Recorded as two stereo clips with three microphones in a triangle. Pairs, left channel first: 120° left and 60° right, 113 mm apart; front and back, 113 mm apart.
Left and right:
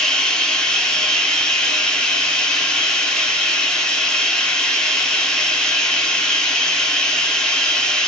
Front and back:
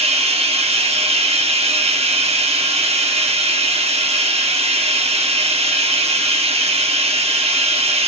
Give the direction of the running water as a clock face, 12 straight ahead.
5 o'clock.